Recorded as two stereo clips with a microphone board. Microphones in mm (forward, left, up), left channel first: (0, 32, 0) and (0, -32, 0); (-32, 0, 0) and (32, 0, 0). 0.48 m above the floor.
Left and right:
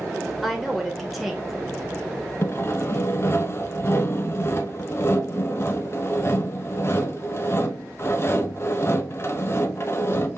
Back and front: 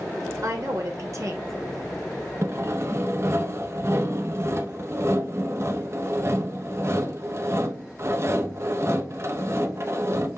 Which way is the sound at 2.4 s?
40° left.